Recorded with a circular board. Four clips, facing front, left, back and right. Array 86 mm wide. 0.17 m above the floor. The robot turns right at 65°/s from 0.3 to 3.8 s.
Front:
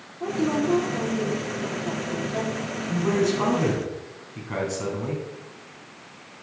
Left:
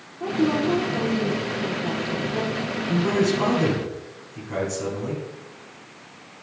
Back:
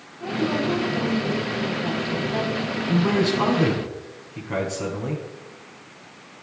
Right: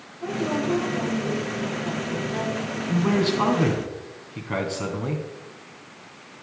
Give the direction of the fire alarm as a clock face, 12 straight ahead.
No fire alarm in this recording.